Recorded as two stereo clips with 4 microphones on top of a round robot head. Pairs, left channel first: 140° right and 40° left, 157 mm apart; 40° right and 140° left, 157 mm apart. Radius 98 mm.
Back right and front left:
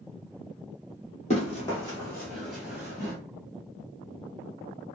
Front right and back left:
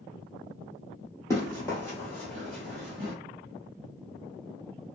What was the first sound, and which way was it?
Running footsteps, 105° right.